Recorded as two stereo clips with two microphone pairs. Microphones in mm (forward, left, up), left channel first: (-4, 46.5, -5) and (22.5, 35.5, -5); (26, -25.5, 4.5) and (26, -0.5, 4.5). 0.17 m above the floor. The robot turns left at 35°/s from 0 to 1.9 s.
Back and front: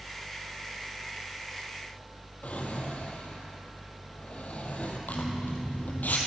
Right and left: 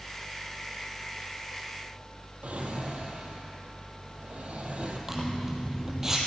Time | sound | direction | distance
2.4 | a drawer | 120° left | 1.5 m
5.1 | a zipper | 165° left | 2 m